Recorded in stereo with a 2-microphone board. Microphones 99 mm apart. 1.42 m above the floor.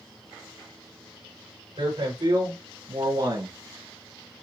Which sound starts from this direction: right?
A man speaking, at 1.8 s.